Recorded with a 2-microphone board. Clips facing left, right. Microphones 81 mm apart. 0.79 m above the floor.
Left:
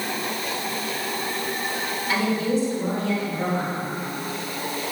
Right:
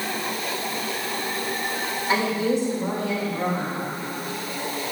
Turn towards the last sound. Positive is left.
turn(degrees=-5)  # may be behind; listen again after turning